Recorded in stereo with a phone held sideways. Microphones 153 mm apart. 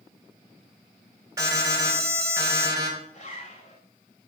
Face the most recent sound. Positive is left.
turn(degrees=50)  # may be behind; listen again after turning